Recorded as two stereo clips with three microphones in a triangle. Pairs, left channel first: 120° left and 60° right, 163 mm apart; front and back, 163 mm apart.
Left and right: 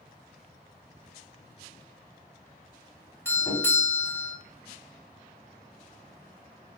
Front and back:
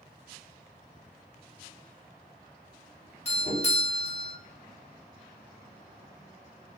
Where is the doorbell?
45° left, 0.9 m.